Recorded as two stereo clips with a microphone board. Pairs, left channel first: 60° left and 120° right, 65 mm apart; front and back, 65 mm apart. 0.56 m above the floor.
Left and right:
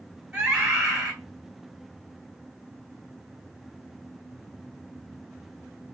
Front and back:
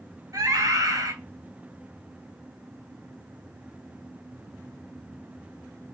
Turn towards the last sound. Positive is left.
turn(degrees=165)